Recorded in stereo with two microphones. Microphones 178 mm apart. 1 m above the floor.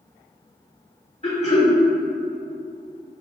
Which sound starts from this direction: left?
Throat clearing, at 1.2 s.